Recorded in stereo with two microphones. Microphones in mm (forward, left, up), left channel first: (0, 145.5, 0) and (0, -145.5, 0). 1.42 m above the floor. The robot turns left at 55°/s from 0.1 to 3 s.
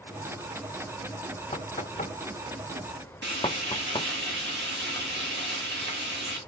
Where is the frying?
40° right (ahead or behind), 2.5 m.